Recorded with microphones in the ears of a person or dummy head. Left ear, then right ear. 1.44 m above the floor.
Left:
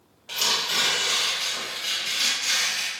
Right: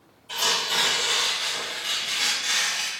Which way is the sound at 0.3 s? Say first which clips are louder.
Even; 65° left (ahead or behind).